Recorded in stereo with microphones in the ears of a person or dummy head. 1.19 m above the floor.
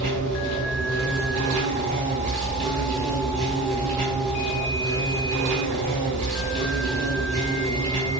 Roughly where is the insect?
Right.